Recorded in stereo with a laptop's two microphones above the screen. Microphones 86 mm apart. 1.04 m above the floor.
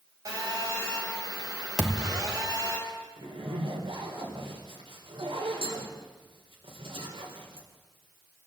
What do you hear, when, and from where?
0.2 s a phone buzzing: 40° right (ahead or behind), 6.5 m
1.8 s a thud: centre (ahead or behind), 2.5 m
3.2 s a zipper: 75° right (ahead or behind), 4 m